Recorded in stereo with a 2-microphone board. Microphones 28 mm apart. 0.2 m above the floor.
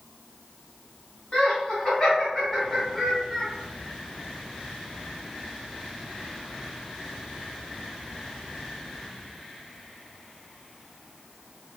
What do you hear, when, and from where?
1.3 s laughter: 35° left (ahead or behind), 1.9 m; by 3.5 s centre (ahead or behind), 1.6 m